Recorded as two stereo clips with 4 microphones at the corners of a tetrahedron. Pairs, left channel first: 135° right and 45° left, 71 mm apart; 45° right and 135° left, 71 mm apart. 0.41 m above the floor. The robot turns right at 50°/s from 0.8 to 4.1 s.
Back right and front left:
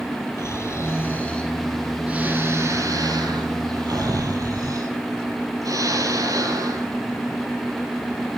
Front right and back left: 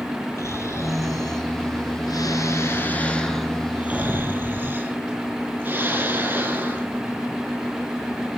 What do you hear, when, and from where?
0.4 s snoring: 90° right, 4 m; by 6.9 s 75° left, 4 m